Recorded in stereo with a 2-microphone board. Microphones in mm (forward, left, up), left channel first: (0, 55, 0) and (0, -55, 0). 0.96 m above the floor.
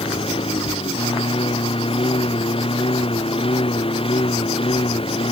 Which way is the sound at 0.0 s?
55° left (ahead or behind).